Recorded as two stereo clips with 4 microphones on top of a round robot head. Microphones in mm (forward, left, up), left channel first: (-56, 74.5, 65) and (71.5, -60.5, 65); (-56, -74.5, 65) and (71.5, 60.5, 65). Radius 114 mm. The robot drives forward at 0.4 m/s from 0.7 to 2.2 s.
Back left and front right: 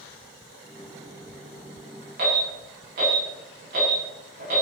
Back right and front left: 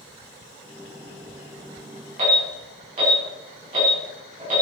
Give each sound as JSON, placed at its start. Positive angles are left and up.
{"t": 2.2, "sound": "an alarm", "azimuth_deg": -5, "distance_m": 8.0}